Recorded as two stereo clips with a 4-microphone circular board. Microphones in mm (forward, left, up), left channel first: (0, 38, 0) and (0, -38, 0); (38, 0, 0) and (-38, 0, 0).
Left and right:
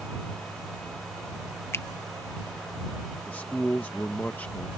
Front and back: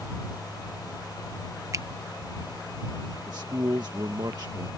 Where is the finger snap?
140° left.